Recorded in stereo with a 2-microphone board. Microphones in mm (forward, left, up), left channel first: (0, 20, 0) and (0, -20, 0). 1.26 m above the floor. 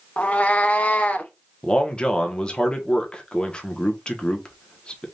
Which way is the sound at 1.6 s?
30° left (ahead or behind).